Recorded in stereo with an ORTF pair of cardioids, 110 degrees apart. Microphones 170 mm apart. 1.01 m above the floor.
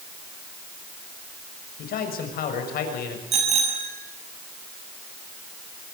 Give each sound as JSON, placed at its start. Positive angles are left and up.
{"t": 1.8, "sound": "a man speaking", "azimuth_deg": 65, "distance_m": 6.0}
{"t": 3.3, "sound": "a bicycle bell", "azimuth_deg": -40, "distance_m": 6.0}